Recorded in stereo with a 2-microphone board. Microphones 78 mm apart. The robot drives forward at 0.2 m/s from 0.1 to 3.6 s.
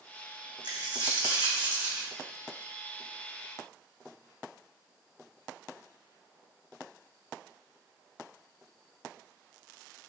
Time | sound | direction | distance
0.6 | a dropped coin | 65° right (ahead or behind) | 1.1 m